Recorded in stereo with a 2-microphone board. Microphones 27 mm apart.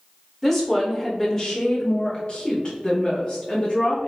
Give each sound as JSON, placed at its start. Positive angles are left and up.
{"t": 0.4, "sound": "a woman speaking", "side_deg": 10, "distance_m": 1.5}